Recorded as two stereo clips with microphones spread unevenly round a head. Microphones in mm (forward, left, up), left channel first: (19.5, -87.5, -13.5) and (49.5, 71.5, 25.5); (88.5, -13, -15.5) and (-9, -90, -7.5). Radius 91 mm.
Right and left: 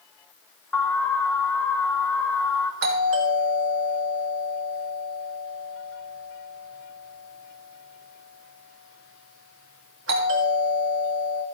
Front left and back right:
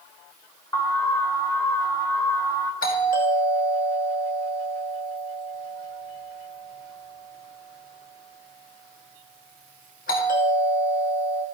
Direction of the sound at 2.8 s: 80° left.